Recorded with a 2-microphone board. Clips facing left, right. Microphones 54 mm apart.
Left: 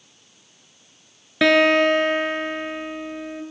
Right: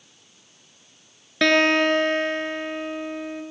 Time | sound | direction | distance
1.4 | a guitar | 5° left (ahead or behind) | 1.1 m